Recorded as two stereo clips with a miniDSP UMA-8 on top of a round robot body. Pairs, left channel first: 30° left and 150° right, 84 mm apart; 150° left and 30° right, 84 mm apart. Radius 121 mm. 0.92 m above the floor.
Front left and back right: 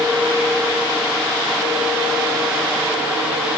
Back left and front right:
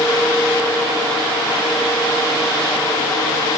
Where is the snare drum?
I don't hear a snare drum.